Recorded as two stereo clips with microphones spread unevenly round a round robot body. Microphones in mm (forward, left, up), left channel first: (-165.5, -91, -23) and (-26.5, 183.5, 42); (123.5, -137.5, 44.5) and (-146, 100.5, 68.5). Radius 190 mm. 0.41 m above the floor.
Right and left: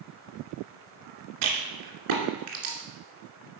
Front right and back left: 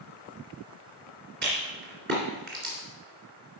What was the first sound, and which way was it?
A rattle, 75° left.